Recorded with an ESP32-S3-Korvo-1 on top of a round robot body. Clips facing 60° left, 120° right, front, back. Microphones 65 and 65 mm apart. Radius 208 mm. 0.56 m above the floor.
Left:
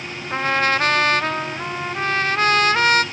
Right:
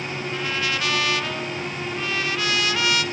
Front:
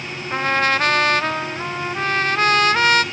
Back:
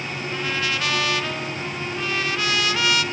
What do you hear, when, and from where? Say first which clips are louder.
0.3 s a trumpet: left 9 dB, front 8 dB; 30° left, 1.2 m